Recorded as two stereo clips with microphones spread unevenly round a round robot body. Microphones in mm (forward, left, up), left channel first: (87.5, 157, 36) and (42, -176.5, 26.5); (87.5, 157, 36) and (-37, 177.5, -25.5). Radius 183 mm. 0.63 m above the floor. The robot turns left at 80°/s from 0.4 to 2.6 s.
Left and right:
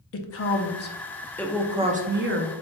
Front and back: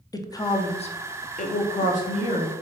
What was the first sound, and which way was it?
A woman speaking, 75° left.